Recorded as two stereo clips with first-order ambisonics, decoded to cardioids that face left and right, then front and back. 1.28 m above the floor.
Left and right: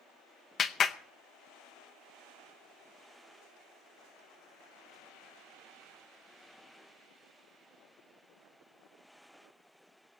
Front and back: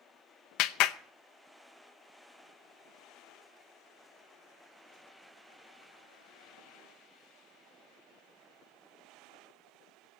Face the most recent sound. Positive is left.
turn(degrees=25)